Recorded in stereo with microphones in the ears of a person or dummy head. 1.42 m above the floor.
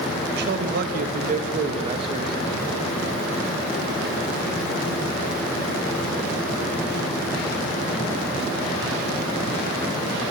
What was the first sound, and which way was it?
A man speaking, 55° right (ahead or behind).